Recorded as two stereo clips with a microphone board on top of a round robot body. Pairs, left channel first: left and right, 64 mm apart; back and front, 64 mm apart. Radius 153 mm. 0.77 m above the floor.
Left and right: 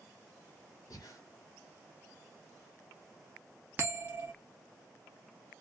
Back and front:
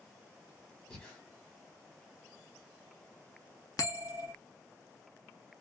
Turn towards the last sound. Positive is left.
turn(degrees=-155)